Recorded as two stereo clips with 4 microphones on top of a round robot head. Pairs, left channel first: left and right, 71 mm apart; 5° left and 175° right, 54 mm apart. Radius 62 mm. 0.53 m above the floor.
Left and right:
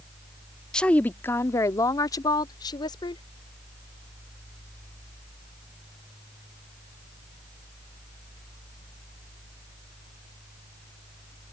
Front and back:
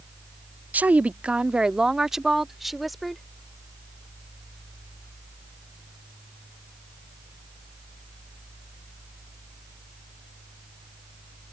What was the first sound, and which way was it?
A woman speaking, 160° left.